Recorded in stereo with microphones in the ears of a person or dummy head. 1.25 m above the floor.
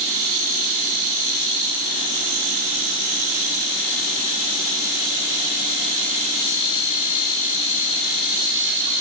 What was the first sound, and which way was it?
Only background noise.